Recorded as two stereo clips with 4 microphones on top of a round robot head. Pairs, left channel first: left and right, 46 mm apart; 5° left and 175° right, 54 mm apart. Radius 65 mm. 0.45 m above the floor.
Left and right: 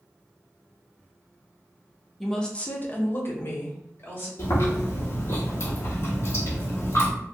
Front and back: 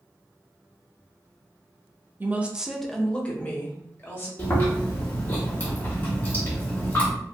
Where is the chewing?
60° left, 1.6 m.